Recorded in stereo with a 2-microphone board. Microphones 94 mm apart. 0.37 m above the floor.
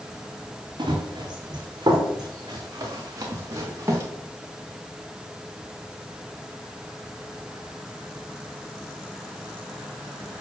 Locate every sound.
0.8 s running footsteps: 55° right (ahead or behind), 5.5 m; by 4.0 s 30° right (ahead or behind), 4 m